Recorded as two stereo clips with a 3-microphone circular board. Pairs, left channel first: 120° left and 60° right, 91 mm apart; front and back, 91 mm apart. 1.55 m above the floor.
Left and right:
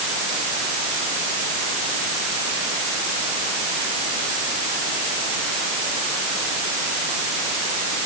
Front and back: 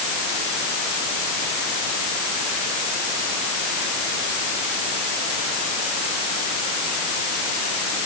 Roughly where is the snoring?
I don't hear snoring.